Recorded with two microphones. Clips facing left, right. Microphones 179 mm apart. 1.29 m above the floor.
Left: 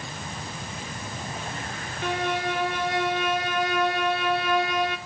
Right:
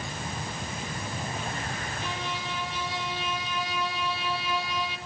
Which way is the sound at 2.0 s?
60° left (ahead or behind).